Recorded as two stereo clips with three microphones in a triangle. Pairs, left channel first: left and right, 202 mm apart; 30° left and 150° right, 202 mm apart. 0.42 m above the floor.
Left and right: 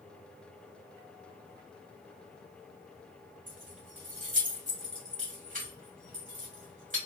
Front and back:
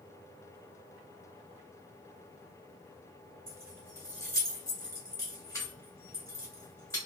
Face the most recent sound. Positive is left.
turn(degrees=-45)